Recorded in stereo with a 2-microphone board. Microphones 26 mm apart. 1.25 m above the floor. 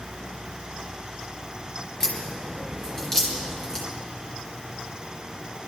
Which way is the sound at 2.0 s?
25° left (ahead or behind).